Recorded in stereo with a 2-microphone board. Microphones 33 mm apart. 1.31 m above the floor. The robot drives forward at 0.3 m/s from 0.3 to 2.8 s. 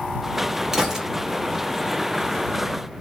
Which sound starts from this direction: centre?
A gunshot, at 0.7 s.